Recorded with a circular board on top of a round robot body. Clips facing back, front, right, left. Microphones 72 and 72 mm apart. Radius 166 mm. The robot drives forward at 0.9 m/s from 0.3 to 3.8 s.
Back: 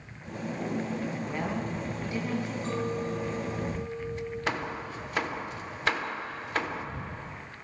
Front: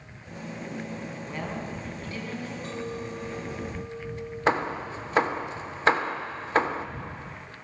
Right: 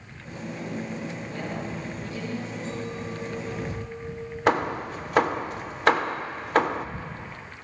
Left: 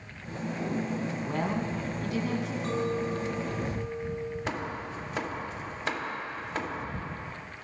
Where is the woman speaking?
95° left, 5.5 m; by 2.5 s 110° left, 6 m.